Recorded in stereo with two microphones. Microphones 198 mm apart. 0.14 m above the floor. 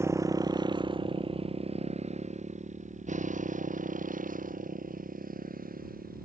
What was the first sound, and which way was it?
A motorcycle, 15° right (ahead or behind).